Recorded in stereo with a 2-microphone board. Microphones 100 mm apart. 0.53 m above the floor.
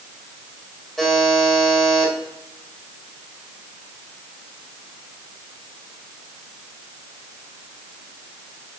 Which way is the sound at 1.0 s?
Centre (ahead or behind).